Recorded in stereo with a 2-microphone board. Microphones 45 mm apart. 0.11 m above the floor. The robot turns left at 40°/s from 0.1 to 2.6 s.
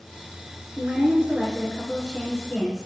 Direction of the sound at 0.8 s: 110° right.